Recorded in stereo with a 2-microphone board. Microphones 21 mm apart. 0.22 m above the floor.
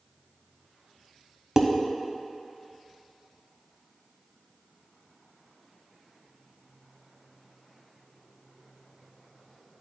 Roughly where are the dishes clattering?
Right.